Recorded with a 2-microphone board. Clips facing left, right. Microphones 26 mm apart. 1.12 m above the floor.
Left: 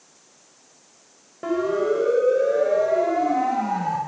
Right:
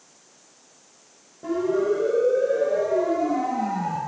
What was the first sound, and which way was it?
A siren, 85° left.